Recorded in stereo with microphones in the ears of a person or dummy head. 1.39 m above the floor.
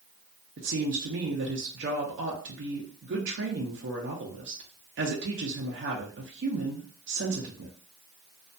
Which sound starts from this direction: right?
A woman speaking, at 0.6 s.